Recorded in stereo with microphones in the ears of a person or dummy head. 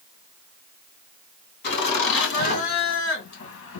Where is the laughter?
75° left (ahead or behind), 3 m; by 3.8 s 85° left, 1.5 m.